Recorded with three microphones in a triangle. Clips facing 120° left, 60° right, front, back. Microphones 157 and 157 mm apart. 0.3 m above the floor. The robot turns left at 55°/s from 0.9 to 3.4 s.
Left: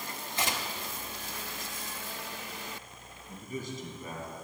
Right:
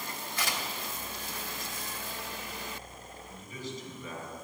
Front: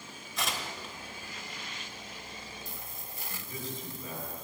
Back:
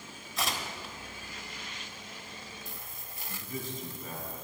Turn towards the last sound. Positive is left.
turn(degrees=150)